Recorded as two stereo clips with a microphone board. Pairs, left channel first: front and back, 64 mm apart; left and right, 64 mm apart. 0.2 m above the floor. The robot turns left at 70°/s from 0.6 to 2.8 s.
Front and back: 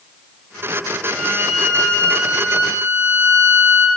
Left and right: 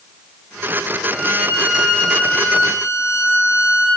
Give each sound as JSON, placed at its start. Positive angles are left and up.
{"t": 1.1, "sound": "a violin", "azimuth_deg": -130, "distance_m": 3.0}